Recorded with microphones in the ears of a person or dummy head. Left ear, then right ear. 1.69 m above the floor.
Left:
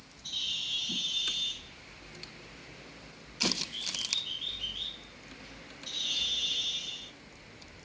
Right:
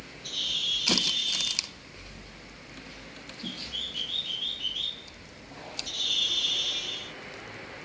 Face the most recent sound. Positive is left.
turn(degrees=-5)  # may be behind; listen again after turning